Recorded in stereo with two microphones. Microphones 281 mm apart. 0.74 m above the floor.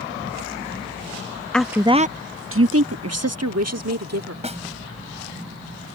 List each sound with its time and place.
1.5 s a woman speaking: 5° left (ahead or behind); by 4.3 s 70° right (ahead or behind)
4.4 s a snare drum: 25° right (ahead or behind)